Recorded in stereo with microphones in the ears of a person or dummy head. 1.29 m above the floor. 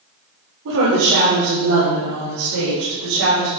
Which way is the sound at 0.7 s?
70° right (ahead or behind).